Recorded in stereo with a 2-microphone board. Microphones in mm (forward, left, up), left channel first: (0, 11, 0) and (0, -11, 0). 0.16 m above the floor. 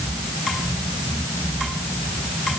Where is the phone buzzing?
No phone buzzing in this recording.